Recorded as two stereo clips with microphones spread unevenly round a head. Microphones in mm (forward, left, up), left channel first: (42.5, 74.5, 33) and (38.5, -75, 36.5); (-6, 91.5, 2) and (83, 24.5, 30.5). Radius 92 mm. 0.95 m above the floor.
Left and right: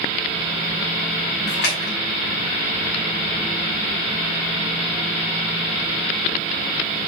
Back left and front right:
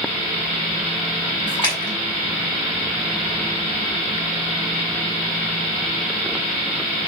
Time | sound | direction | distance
1.5 | a splash | 90° left | 6 m